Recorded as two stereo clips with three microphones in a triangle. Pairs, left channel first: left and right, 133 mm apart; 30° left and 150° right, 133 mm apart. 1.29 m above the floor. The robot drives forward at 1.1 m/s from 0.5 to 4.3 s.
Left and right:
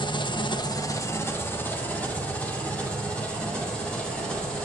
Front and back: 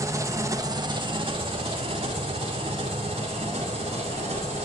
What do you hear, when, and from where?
0.0 s an engine running: 145° left, 0.9 m; by 4.6 s 175° left, 5 m